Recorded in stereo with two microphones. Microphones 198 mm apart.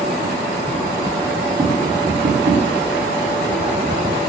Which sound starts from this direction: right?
Tapping, at 1.6 s.